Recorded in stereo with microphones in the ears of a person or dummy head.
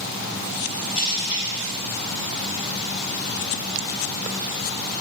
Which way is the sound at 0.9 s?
35° left (ahead or behind).